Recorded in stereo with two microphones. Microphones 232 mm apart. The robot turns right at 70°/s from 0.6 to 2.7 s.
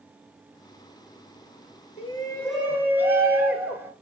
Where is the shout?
140° left, 2 m; by 3.9 s 170° right, 2 m.